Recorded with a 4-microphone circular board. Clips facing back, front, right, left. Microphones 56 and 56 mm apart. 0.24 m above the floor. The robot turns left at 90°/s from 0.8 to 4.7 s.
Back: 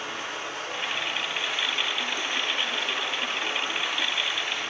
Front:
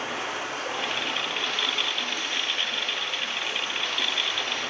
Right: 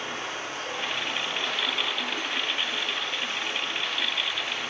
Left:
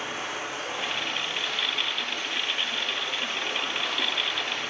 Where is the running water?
15° left, 2 m; by 4.7 s 25° left, 2 m.